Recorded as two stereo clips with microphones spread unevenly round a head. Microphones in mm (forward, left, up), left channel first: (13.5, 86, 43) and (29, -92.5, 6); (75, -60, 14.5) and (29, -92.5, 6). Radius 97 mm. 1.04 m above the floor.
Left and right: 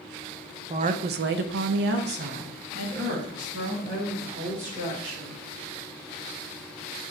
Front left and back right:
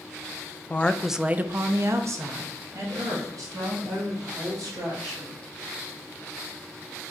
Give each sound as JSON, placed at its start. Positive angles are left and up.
{"t": 0.7, "sound": "a woman speaking", "azimuth_deg": -35, "distance_m": 0.5}